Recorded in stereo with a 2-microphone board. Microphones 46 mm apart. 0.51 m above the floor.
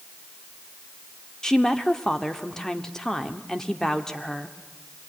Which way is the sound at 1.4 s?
10° left (ahead or behind).